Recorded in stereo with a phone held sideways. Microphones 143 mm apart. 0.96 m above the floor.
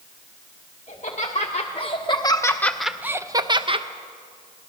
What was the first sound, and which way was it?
Laughter, 55° left (ahead or behind).